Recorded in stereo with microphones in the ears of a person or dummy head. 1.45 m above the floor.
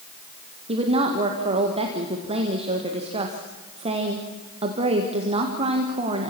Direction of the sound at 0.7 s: 40° right (ahead or behind).